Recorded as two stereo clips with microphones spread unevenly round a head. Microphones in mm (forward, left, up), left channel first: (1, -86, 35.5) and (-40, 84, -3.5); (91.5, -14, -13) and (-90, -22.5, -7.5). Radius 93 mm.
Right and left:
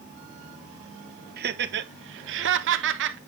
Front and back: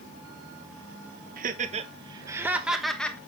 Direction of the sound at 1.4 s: 135° left.